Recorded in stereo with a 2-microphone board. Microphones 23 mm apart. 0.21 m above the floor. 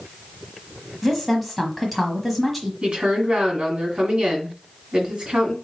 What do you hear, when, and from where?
1.0 s a woman speaking: centre (ahead or behind), 1.2 m
2.8 s a woman speaking: 40° right (ahead or behind), 1.7 m